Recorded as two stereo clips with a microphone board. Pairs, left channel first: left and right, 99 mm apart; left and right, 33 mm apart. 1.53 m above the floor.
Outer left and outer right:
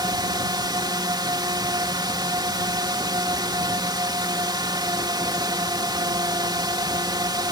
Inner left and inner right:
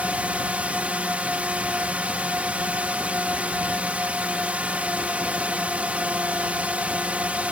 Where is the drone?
45° right (ahead or behind).